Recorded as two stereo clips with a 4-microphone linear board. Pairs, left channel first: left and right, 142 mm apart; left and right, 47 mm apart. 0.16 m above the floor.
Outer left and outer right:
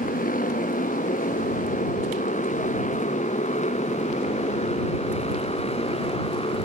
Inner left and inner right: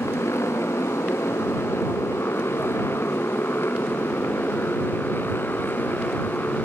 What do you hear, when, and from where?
0.0 s a motorcycle: 75° left (ahead or behind); by 6.7 s 40° left (ahead or behind)